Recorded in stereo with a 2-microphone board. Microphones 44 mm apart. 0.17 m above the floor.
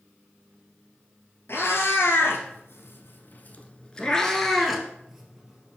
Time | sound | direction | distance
1.5 | a cat meowing | 65° left (ahead or behind) | 1.2 m